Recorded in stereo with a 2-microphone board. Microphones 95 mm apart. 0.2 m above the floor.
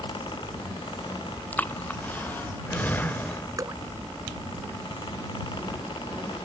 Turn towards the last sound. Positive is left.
turn(degrees=-35)  # may be behind; listen again after turning